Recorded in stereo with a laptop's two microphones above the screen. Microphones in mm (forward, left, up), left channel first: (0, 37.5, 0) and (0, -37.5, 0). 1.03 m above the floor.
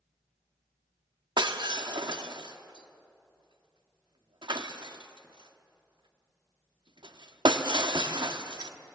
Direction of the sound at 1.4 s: 75° right (ahead or behind).